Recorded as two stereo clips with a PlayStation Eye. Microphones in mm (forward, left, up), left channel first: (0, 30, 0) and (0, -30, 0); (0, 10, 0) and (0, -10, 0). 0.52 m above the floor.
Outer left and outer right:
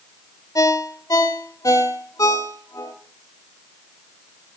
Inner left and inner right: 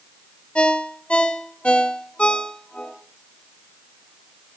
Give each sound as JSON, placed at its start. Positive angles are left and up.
{"t": 0.6, "sound": "a ringtone", "side_deg": 75, "distance_m": 1.5}